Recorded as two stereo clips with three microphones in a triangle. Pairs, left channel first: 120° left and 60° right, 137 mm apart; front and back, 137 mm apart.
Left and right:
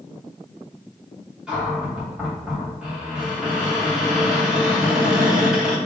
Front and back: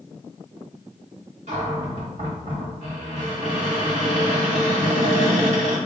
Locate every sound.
1.5 s a cupboard door: 145° right, 3 m